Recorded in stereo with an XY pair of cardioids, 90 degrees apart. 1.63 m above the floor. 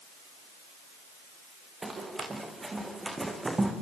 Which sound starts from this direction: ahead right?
Running footsteps, at 1.8 s.